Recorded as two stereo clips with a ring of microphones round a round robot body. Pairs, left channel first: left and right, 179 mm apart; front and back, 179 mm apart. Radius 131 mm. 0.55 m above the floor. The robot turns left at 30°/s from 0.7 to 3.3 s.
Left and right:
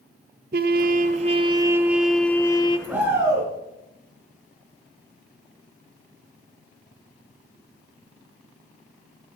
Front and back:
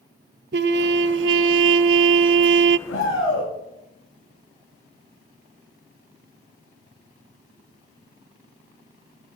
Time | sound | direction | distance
0.5 | a trumpet | 140° right | 0.5 m
2.9 | a shout | 10° right | 6 m